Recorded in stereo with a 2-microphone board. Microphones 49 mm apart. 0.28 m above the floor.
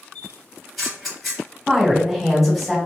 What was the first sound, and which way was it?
A camera shutter, 5° left (ahead or behind).